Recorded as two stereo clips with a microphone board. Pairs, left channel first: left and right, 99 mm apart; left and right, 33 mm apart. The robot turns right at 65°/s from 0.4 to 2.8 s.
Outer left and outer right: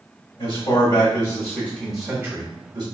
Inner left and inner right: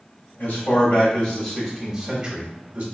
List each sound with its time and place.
0.4 s a man speaking: 85° left, 1.0 m; by 2.8 s 120° right, 1.0 m